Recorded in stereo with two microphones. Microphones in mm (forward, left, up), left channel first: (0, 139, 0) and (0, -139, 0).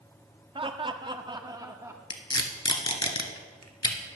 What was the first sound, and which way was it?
Laughter, 20° right (ahead or behind).